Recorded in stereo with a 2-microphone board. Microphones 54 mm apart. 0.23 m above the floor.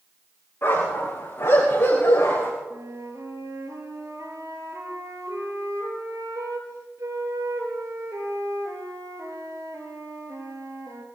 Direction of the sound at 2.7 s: 75° right (ahead or behind).